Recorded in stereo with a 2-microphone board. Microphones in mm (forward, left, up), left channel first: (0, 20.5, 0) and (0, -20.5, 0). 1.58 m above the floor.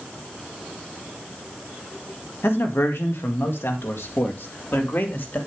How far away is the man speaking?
About 2 m.